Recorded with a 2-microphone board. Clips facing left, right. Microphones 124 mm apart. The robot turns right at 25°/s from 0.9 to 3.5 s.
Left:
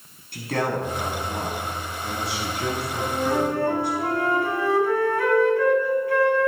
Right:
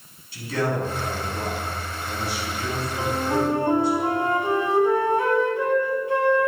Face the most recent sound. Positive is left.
turn(degrees=-20)  # may be behind; listen again after turning